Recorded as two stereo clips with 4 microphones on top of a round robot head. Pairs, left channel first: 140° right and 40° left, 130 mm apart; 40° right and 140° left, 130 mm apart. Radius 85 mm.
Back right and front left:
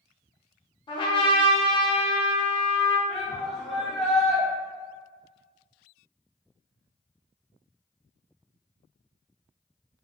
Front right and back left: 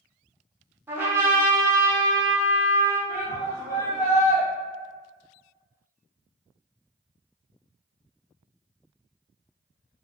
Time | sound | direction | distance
0.9 | a trumpet | 155° right | 0.8 m
3.1 | a shout | 50° right | 1.4 m